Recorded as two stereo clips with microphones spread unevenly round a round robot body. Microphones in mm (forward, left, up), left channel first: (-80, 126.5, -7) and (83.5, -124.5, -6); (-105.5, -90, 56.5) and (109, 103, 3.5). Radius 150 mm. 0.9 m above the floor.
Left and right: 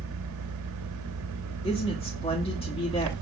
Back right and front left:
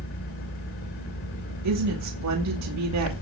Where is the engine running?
90° right, 3 m.